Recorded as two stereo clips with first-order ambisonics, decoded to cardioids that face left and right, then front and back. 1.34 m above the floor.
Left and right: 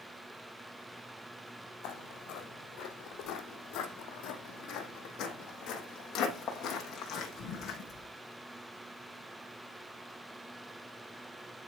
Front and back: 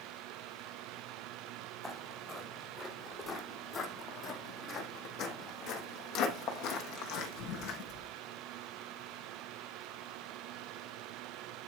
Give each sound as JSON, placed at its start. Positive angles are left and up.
{"t": 1.8, "sound": "footsteps", "azimuth_deg": 80, "distance_m": 2.5}